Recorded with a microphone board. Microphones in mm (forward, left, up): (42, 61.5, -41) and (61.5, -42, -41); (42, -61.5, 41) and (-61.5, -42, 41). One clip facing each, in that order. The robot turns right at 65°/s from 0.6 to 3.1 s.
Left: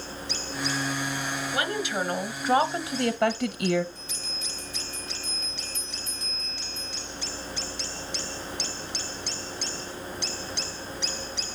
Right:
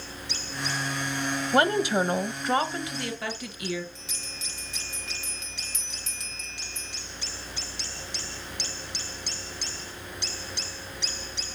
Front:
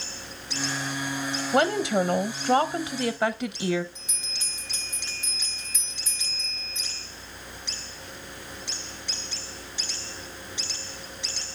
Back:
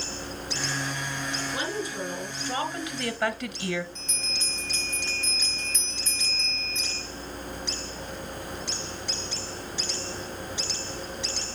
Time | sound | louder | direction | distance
1.5 | a woman speaking | right 8 dB, front 14 dB | 45° right | 1.1 m
4.0 | a bell | left 3 dB, back 6 dB | 90° right | 3 m